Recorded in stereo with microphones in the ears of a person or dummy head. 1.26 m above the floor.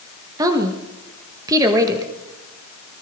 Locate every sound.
0.4 s a woman speaking: 20° right (ahead or behind), 1.1 m